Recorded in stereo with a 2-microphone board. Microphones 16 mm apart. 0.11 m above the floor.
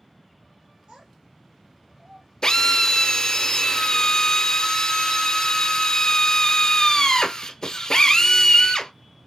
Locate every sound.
0.9 s a child speaking: 60° right (ahead or behind), 2 m; by 2.3 s 55° right (ahead or behind), 3 m
2.4 s a drill: 40° left (ahead or behind), 1.0 m